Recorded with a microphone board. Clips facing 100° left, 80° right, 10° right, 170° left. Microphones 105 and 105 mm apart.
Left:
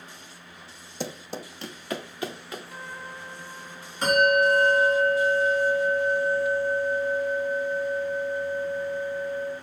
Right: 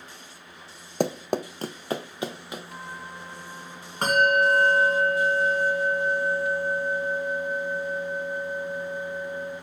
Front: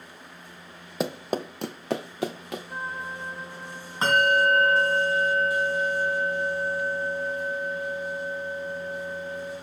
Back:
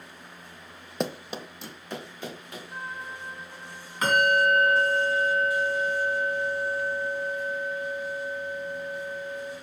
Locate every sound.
1.0 s running footsteps: 100° right, 0.5 m; by 2.6 s 5° right, 1.7 m
2.7 s a trumpet: 25° right, 1.3 m
4.0 s a bell: 65° right, 3 m